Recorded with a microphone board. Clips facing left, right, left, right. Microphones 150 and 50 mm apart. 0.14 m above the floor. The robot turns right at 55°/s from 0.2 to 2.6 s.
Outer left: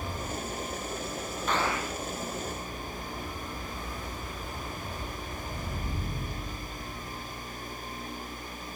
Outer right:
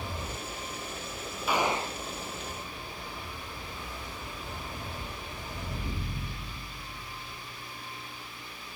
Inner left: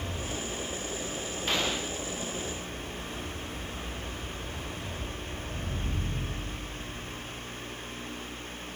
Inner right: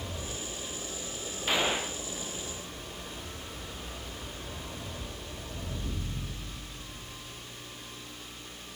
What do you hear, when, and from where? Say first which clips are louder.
1.5 s a gunshot: outer right 2 dB, inner right 2 dB; 10° right (ahead or behind); by 2.0 s 35° right (ahead or behind)